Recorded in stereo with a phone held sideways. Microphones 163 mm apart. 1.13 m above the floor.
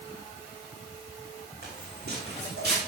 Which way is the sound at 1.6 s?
75° right (ahead or behind).